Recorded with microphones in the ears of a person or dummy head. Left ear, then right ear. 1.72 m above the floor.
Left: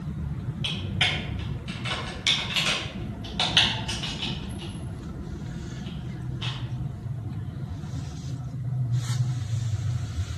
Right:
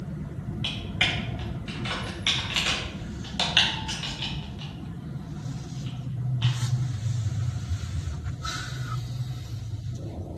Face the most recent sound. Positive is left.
turn(degrees=-20)  # may be behind; listen again after turning